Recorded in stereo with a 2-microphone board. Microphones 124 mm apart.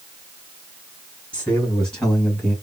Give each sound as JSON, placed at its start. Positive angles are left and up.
{"t": 1.3, "sound": "a man speaking", "side_deg": 10, "distance_m": 1.7}